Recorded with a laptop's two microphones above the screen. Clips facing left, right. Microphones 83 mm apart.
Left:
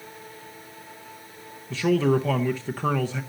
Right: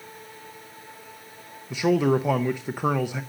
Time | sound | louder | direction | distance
1.7 | a man speaking | even | 15° right (ahead or behind) | 0.6 m